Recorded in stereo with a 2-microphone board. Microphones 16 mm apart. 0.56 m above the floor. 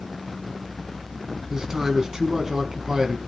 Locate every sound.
1.5 s a man speaking: 45° right (ahead or behind), 4.5 m